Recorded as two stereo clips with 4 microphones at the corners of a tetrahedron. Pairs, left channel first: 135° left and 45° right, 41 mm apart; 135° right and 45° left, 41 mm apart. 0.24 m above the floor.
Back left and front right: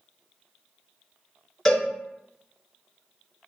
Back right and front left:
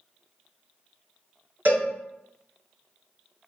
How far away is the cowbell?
About 1.3 m.